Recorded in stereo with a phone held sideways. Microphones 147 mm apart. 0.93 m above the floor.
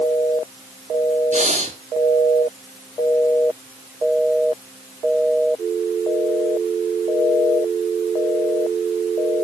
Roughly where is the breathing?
Right.